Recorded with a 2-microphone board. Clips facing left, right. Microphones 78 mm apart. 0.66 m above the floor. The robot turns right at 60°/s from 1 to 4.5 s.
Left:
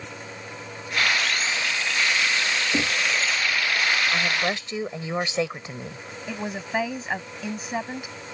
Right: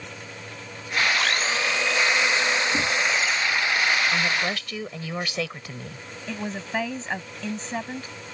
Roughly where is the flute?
No flute in this recording.